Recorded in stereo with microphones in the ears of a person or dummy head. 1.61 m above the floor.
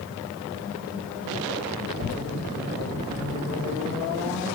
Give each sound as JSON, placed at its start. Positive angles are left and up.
{"t": 1.9, "sound": "a child speaking", "side_deg": 50, "distance_m": 0.5}